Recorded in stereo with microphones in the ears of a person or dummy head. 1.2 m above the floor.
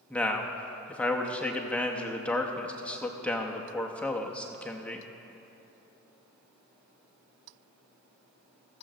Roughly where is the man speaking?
Centre.